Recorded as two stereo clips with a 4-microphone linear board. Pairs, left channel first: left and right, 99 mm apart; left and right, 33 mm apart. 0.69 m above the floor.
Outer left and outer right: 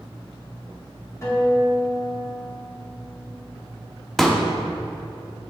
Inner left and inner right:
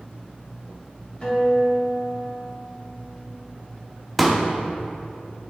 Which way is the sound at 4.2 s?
Centre (ahead or behind).